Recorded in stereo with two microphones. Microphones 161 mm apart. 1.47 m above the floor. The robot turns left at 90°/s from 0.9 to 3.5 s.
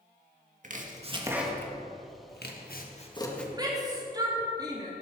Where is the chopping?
50° right (ahead or behind), 1.6 m; by 3.4 s 5° left (ahead or behind), 1.6 m.